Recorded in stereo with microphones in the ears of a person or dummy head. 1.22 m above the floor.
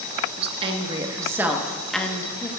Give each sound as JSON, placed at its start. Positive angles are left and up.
{"t": 0.4, "sound": "a woman speaking", "side_deg": -35, "distance_m": 1.3}